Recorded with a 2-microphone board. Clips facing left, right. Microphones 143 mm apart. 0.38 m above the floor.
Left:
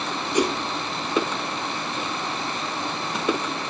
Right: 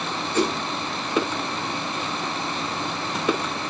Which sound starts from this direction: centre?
A whoosh, at 0.3 s.